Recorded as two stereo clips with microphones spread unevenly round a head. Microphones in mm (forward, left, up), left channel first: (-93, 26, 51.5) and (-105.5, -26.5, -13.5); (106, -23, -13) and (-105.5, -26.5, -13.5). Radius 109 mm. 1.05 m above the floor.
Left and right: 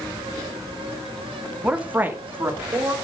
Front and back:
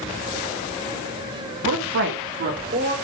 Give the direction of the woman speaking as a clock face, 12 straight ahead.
5 o'clock.